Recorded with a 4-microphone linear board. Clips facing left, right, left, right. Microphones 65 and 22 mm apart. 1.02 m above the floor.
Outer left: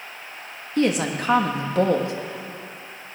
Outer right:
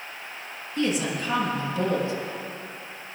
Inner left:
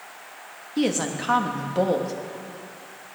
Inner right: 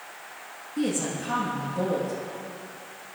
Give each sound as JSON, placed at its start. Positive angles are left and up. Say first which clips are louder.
{"t": 0.8, "sound": "a woman speaking", "louder": "outer left 4 dB, inner left 4 dB", "side_deg": 65, "distance_m": 1.5}